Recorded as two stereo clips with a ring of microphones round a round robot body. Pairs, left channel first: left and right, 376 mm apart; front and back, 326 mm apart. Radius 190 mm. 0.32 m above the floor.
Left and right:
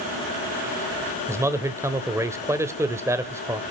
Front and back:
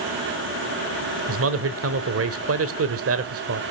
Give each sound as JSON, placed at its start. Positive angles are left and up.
{"t": 1.3, "sound": "a man speaking", "azimuth_deg": -170, "distance_m": 1.1}